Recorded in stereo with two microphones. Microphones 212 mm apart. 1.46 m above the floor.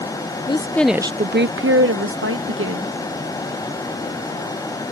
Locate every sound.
0.5 s a woman speaking: 25° left (ahead or behind); by 2.9 s 75° right (ahead or behind)